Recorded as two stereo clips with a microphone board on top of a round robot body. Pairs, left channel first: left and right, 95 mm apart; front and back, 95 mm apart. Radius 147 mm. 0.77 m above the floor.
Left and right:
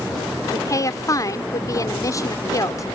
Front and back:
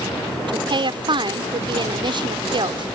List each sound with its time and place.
0.5 s a woman speaking: 145° left